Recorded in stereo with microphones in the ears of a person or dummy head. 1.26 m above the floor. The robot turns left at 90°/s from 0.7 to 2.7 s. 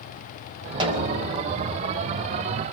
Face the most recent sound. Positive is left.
turn(degrees=165)